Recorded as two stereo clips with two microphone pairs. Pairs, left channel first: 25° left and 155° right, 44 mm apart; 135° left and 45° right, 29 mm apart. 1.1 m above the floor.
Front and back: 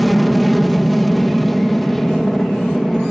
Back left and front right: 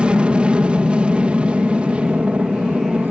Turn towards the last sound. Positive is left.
turn(degrees=-60)